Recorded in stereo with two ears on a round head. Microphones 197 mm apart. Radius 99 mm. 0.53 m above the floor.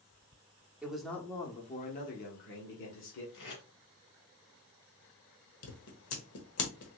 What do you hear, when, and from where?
0.8 s a man speaking: 5° right (ahead or behind), 0.9 m; by 3.2 s 65° left (ahead or behind), 1.5 m
3.3 s tape being pulled: 65° left (ahead or behind), 2 m
5.6 s scissors: 80° left, 1.0 m